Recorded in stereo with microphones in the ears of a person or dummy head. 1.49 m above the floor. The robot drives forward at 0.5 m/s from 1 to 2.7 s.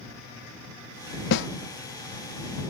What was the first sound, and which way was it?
A snare drum, 70° left (ahead or behind).